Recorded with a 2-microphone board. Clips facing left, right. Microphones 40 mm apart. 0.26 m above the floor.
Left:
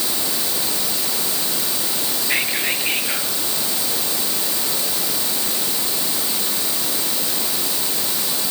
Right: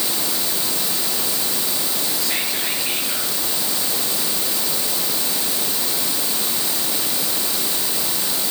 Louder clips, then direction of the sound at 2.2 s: Left 7 dB; 25° left (ahead or behind).